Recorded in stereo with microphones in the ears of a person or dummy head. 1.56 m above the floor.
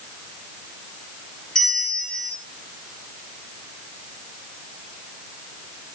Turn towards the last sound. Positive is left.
turn(degrees=10)  # may be behind; listen again after turning